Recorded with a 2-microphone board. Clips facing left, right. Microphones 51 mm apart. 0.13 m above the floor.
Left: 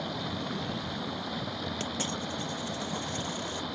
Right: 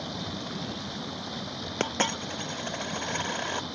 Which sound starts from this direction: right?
A dropped coin, at 1.8 s.